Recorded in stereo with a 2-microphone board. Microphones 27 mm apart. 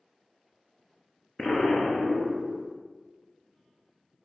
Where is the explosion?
25° left (ahead or behind), 1.0 m.